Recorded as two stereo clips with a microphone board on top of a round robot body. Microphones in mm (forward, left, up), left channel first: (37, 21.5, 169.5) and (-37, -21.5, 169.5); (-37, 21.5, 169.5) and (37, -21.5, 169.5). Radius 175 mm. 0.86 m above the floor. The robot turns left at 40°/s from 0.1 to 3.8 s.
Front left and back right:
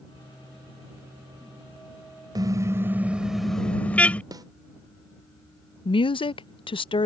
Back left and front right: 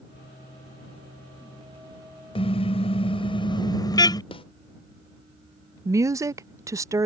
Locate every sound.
2.4 s a car horn: 165° left; by 4.2 s 105° left
4.3 s a snare drum: 165° left
5.8 s a woman speaking: 25° left